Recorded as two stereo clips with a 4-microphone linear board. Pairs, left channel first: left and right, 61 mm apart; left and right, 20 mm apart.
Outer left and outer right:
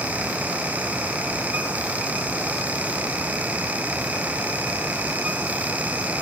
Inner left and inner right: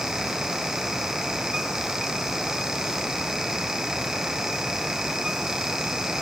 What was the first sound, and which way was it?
Only background noise.